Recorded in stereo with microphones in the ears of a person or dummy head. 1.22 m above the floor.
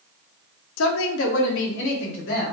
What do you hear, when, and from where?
0.8 s a woman speaking: 75° left (ahead or behind), 0.6 m; by 2.5 s 60° left (ahead or behind), 1.5 m